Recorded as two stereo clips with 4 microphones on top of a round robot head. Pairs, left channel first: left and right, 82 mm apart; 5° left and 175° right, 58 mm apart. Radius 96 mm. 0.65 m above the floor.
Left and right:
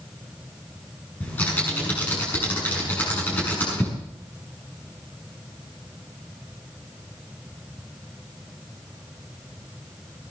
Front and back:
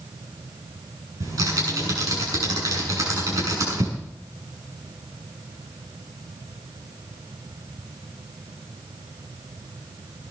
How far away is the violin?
I don't hear a violin.